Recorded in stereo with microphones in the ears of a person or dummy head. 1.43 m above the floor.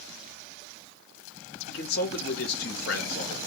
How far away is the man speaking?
About 0.5 m.